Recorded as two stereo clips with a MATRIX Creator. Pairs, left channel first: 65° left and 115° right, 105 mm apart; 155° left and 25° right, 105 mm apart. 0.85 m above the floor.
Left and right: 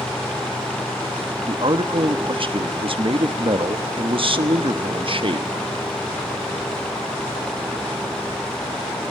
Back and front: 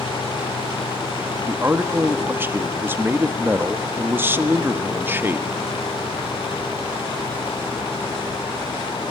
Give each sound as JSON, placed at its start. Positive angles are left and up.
{"t": 1.5, "sound": "a man speaking", "azimuth_deg": -90, "distance_m": 1.2}